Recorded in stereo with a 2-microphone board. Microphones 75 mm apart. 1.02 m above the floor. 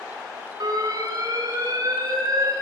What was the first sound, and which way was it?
An alarm, 60° right (ahead or behind).